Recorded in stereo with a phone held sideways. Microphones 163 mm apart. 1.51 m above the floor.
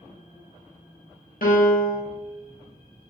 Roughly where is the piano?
Left.